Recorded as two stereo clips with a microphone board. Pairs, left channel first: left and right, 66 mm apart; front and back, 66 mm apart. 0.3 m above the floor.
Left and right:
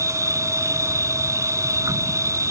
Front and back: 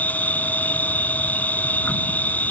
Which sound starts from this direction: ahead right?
An insect, at 0.0 s.